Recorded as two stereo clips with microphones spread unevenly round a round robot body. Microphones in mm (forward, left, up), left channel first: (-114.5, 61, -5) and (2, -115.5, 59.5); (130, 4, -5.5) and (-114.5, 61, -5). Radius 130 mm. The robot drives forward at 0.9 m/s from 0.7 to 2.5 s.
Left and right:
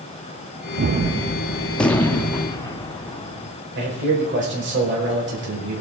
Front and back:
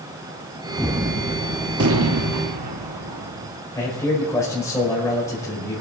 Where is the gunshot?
100° right, 0.6 m; by 3.5 s 165° right, 1.7 m.